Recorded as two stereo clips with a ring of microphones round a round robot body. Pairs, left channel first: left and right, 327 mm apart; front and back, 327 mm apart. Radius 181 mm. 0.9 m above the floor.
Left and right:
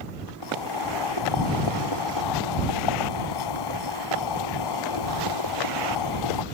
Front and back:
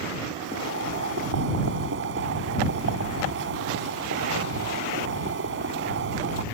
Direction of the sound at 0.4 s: 120° left.